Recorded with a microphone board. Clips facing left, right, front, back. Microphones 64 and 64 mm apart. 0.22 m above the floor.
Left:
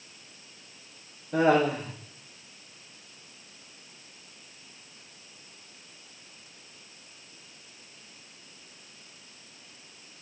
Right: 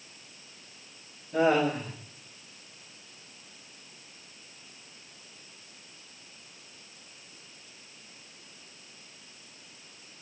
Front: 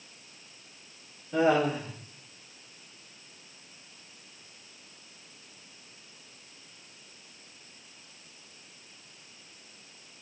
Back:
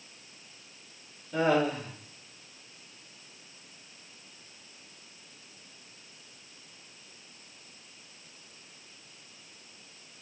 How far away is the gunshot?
I don't hear a gunshot.